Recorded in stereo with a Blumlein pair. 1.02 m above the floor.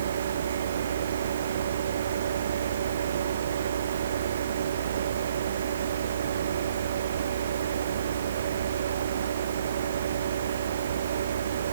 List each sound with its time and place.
0.0 s a fan: 65° right, 1.2 m